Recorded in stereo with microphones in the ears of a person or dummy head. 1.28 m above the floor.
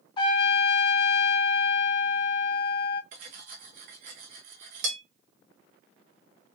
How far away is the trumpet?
About 0.6 m.